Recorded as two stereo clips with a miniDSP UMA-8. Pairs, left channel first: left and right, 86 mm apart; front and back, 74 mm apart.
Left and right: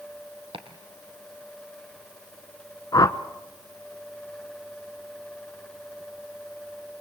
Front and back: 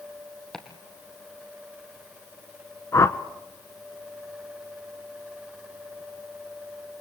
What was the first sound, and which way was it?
Chopping, 85° right.